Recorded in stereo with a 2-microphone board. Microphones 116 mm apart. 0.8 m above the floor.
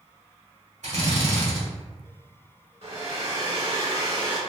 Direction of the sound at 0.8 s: 85° right.